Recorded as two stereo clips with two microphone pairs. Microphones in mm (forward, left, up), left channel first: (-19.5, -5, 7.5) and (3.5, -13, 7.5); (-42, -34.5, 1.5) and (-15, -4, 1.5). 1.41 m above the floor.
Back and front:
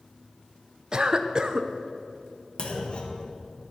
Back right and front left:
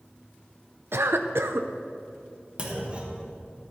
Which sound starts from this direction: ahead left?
A cough, at 0.9 s.